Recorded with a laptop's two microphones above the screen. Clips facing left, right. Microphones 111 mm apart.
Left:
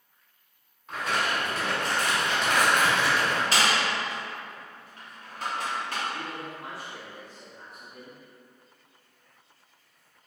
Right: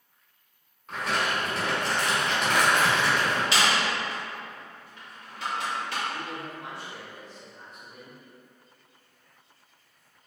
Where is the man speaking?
10° left (ahead or behind), 1.5 m.